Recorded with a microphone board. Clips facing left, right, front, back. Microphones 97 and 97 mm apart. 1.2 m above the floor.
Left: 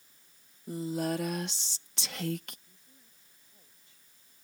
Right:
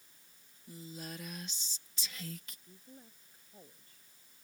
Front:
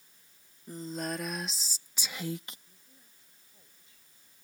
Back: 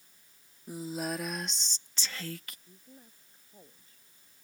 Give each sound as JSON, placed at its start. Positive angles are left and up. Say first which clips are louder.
{"t": 0.7, "sound": "a woman speaking", "louder": "left 15 dB, back 1 dB", "azimuth_deg": 100}
{"t": 2.7, "sound": "a woman speaking", "louder": "right 9 dB, back 9 dB", "azimuth_deg": -135}